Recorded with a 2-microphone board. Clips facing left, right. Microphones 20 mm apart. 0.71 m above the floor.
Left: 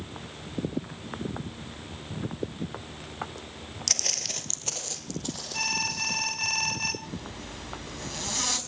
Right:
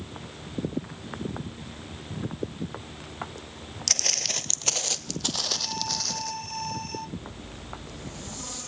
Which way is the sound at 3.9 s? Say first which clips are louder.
Right 2 dB; 10° right (ahead or behind).